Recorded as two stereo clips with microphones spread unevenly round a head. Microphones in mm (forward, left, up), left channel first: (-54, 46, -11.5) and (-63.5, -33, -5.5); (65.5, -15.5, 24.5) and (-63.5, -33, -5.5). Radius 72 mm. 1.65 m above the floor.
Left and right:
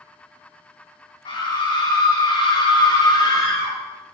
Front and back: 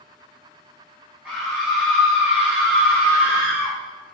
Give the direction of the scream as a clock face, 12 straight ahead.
9 o'clock.